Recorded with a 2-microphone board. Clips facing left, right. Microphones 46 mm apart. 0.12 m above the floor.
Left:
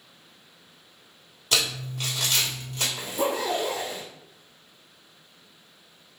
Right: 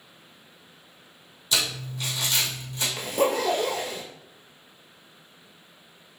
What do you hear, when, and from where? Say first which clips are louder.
1.5 s crumpling: left 1 dB; 50° left (ahead or behind), 1.8 m
3.0 s a zipper: right 4 dB; 55° right (ahead or behind), 1.1 m